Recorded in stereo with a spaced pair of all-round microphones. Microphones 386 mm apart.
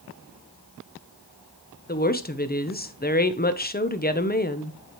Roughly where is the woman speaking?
Left.